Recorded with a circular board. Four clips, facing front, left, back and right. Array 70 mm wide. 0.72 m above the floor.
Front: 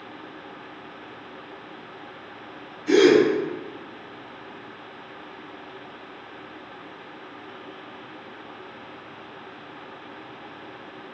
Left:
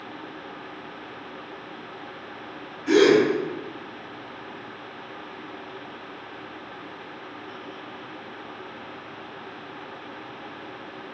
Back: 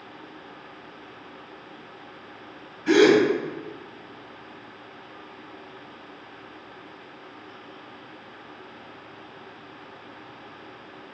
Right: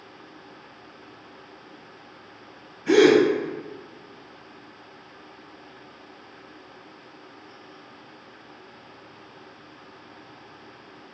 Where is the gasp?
160° right, 1.4 m.